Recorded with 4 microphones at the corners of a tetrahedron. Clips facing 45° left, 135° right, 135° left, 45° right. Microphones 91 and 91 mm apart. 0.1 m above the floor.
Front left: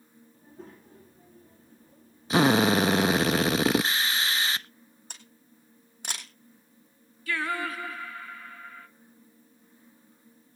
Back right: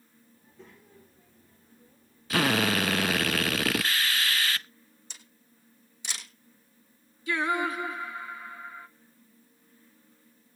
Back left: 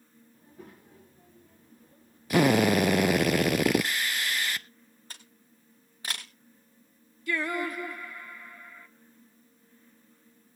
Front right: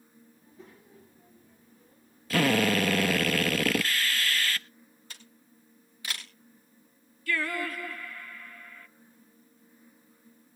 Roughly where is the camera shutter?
Left.